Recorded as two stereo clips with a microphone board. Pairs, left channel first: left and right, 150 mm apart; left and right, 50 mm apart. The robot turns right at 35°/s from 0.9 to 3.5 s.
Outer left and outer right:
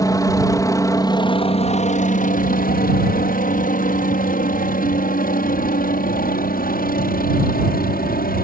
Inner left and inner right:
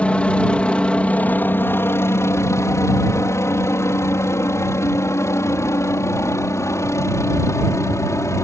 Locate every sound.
0.0 s a helicopter: 20° left (ahead or behind); by 8.4 s 70° left (ahead or behind)